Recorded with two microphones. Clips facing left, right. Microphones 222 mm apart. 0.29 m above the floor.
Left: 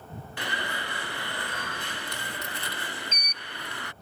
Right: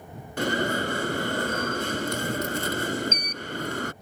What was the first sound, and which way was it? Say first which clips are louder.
An alarm: right 12 dB; 45° right (ahead or behind).